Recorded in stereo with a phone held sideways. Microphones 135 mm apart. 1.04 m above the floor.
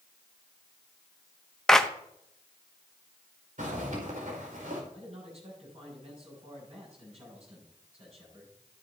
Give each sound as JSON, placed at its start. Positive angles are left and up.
{"t": 1.7, "sound": "a clap", "side_deg": 5, "distance_m": 0.8}
{"t": 3.6, "sound": "a zipper", "side_deg": -80, "distance_m": 5.0}
{"t": 4.9, "sound": "a man speaking", "side_deg": -55, "distance_m": 7.5}